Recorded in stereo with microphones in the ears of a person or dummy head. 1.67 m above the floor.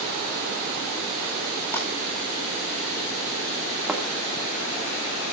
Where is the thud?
5° right (ahead or behind), 1.8 m.